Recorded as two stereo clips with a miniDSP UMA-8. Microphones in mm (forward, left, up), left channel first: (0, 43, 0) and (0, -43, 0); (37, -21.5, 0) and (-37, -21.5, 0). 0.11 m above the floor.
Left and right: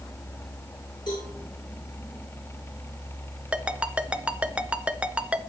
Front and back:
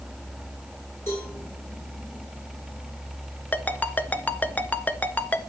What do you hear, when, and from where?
1.1 s a cowbell: 55° left, 7.5 m
3.5 s a ringtone: 30° right, 0.7 m